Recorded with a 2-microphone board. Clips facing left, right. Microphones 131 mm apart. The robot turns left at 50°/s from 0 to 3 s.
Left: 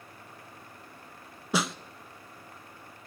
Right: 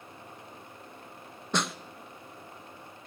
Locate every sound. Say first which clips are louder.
1.5 s a snare drum: left 2 dB; 5° left (ahead or behind), 0.7 m; by 1.8 s 5° right (ahead or behind), 0.7 m